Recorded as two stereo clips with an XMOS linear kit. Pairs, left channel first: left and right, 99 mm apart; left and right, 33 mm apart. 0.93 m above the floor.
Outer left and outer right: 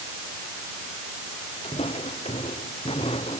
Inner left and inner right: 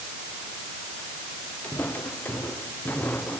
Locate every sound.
1.6 s footsteps: 80° left; by 3.4 s 75° left (ahead or behind)